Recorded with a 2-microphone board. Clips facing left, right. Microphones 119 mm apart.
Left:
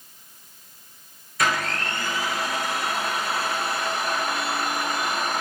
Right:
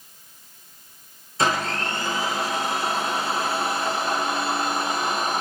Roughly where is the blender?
Right.